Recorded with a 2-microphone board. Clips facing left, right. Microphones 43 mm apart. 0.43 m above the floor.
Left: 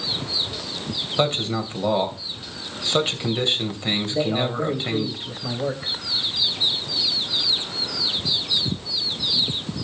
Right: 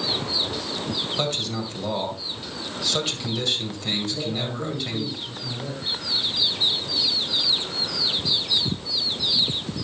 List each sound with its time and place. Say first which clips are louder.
1.2 s a man speaking: left 9 dB; 30° left (ahead or behind), 2 m
4.1 s a man speaking: left 6 dB; 55° left (ahead or behind), 2.5 m